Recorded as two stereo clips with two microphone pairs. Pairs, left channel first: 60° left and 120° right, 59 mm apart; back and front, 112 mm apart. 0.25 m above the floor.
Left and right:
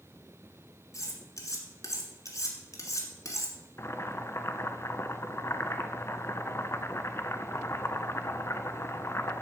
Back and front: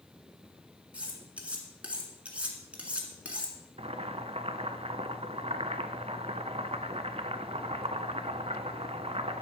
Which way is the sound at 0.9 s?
80° left.